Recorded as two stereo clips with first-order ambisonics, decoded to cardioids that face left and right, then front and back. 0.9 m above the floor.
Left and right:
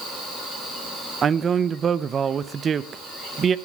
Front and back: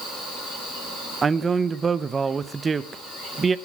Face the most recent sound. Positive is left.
turn(degrees=-130)